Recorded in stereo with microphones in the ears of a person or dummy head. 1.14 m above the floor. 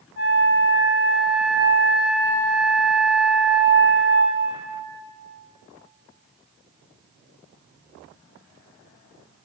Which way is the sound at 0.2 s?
50° left (ahead or behind).